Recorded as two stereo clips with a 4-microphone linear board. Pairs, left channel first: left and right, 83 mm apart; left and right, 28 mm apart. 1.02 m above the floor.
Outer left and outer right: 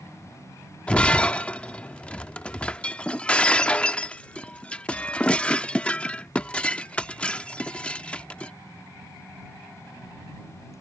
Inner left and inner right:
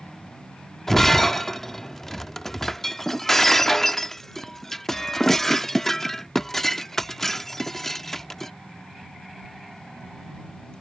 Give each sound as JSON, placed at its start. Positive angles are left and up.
{"t": 0.9, "sound": "breaking glass", "side_deg": 15}